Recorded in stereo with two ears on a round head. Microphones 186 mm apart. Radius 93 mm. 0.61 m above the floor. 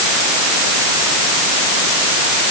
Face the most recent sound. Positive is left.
No sound to turn to.